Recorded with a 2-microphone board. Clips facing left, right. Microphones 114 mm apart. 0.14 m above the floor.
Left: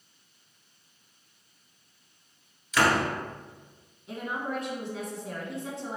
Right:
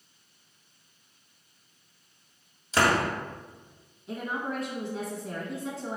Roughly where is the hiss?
No hiss in this recording.